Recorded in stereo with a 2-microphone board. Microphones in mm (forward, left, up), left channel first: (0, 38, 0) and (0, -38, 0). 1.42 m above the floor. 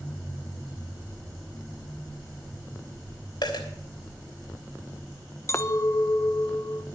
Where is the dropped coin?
75° left (ahead or behind), 3 m.